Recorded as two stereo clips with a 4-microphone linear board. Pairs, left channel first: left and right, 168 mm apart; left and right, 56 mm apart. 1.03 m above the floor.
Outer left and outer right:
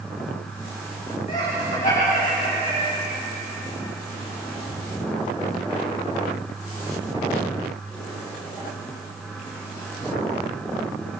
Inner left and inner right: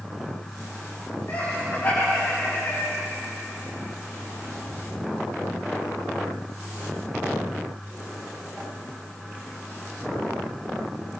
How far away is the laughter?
About 8 m.